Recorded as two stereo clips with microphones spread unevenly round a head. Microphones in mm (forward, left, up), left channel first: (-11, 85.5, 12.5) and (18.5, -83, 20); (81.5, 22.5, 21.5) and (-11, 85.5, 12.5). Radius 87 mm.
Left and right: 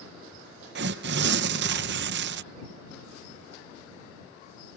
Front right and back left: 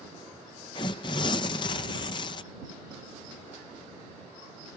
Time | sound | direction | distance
0.8 | tearing paper | 90° right | ?